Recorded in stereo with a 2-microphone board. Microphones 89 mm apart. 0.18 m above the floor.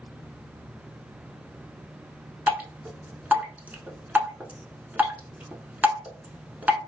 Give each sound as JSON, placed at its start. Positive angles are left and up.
{"t": 2.5, "sound": "dripping", "side_deg": -20, "distance_m": 0.6}